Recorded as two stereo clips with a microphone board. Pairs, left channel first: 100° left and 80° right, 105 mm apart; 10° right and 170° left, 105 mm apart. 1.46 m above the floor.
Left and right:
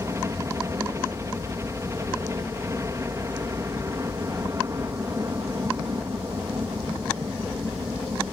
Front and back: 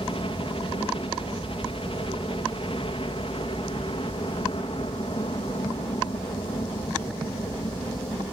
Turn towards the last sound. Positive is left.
turn(degrees=-20)